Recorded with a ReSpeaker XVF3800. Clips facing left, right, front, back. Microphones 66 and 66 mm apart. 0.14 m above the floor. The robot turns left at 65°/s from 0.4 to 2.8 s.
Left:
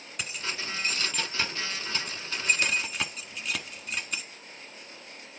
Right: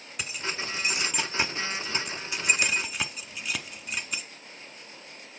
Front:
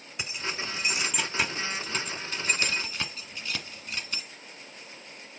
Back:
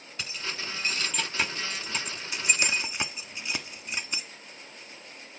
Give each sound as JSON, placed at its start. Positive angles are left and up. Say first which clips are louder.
{"t": 0.2, "sound": "keys jangling", "louder": "right 2 dB, front 2 dB", "azimuth_deg": -10, "distance_m": 0.8}